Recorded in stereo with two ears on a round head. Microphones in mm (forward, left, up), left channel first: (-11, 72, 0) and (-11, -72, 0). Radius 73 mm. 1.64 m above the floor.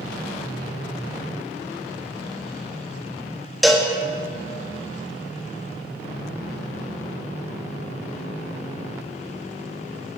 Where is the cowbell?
Centre (ahead or behind), 1.5 m.